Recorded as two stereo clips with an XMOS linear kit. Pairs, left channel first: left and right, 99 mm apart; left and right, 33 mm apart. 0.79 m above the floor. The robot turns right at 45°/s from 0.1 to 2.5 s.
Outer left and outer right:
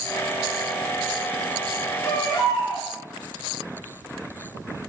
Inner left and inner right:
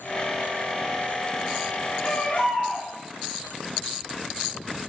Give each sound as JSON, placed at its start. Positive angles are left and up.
{"t": 2.0, "sound": "a baby crying", "side_deg": 30, "distance_m": 3.0}